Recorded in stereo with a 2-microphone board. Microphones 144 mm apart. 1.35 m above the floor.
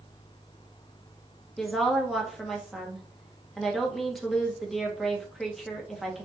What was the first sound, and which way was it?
A woman speaking, centre (ahead or behind).